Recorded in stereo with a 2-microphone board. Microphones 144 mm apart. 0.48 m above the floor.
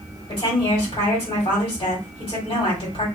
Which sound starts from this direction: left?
A woman speaking, at 0.3 s.